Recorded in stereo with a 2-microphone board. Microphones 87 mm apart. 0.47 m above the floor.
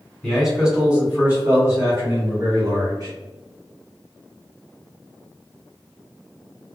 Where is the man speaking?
Centre (ahead or behind), 1.5 m; by 3.1 s 50° right (ahead or behind), 2 m.